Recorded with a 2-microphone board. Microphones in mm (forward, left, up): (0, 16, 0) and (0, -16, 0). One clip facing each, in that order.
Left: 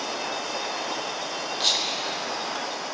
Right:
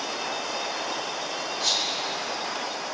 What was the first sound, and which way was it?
Whispering, 75° left (ahead or behind).